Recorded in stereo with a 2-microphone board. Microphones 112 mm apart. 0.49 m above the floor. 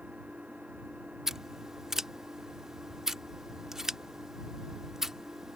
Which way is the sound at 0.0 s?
10° right (ahead or behind).